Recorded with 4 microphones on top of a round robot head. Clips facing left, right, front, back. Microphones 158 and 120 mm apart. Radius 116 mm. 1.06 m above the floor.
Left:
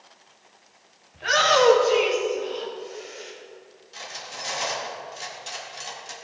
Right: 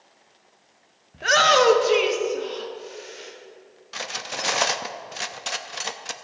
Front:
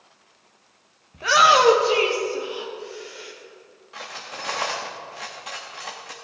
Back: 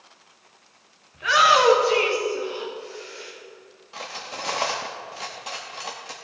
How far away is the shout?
About 1.2 m.